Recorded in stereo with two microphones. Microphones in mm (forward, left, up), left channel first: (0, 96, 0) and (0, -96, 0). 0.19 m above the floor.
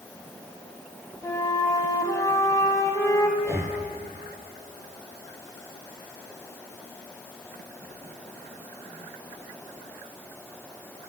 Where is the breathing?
15° right (ahead or behind), 1.0 m.